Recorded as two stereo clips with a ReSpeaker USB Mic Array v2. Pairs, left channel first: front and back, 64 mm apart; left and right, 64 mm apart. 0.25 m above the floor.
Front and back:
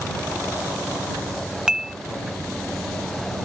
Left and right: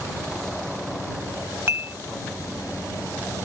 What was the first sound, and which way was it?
Dishes clattering, 105° right.